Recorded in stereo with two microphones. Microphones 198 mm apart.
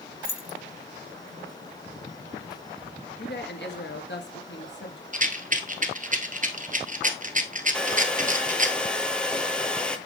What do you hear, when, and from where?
0.2 s keys jangling: 45° left (ahead or behind), 0.9 m
3.2 s a woman speaking: 65° left (ahead or behind), 2.5 m
5.1 s a rattle: 40° right (ahead or behind), 1.2 m
7.7 s a hair dryer: 5° left (ahead or behind), 0.8 m